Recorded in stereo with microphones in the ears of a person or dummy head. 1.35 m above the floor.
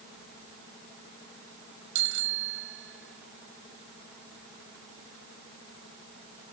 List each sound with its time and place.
1.9 s a bicycle bell: 70° right (ahead or behind)